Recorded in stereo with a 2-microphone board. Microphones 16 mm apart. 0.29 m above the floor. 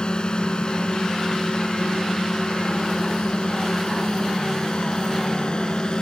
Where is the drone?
60° left (ahead or behind); by 6.0 s 55° left (ahead or behind).